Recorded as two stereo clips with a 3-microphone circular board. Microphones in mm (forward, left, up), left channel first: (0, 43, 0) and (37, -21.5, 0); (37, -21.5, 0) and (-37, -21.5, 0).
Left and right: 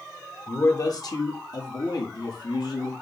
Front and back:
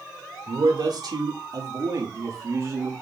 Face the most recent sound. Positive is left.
turn(degrees=130)